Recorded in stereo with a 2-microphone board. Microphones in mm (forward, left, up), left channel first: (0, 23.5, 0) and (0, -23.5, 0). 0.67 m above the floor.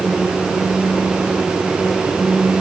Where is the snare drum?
No snare drum in this recording.